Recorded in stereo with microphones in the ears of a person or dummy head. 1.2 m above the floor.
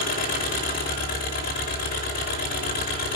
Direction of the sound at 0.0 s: 45° left (ahead or behind).